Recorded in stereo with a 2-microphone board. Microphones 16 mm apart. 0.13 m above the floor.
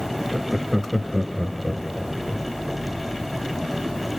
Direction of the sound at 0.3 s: 15° right (ahead or behind).